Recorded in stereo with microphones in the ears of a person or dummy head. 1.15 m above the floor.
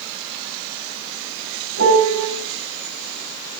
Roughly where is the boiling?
I don't hear boiling.